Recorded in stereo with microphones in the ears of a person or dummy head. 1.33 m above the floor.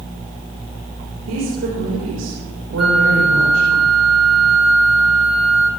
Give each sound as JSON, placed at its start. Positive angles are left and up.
{"t": 1.3, "sound": "a woman speaking", "side_deg": -90, "distance_m": 5.5}
{"t": 2.8, "sound": "a flute", "side_deg": -5, "distance_m": 1.8}